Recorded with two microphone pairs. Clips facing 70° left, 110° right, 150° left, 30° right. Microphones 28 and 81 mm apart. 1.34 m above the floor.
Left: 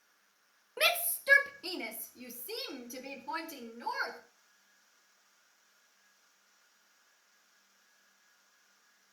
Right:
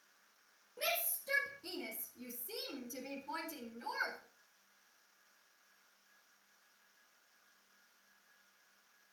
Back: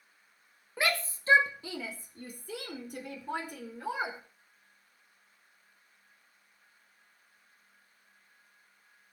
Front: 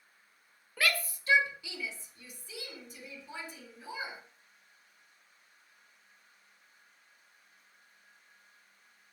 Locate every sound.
0.8 s a shout: 85° left, 1.7 m; by 4.2 s 125° left, 4 m